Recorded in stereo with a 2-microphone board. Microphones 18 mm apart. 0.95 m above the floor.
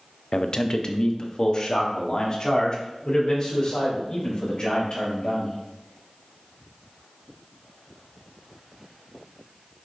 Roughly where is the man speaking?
Left.